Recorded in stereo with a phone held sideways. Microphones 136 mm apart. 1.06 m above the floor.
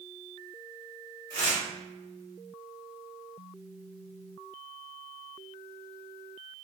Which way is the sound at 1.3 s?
30° left (ahead or behind).